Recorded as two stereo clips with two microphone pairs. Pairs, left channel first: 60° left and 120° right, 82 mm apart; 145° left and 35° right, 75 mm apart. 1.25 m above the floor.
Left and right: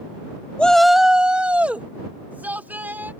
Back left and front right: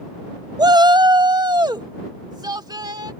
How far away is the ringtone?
No ringtone in this recording.